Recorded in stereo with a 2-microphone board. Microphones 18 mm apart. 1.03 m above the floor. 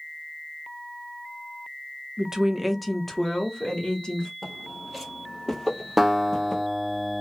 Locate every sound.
2.2 s a woman speaking: 40° right (ahead or behind), 0.6 m; by 4.3 s 45° left (ahead or behind), 1.2 m
4.4 s footsteps: centre (ahead or behind), 1.2 m; by 6.6 s 20° left (ahead or behind), 1.2 m
6.0 s a guitar: 15° right (ahead or behind), 0.7 m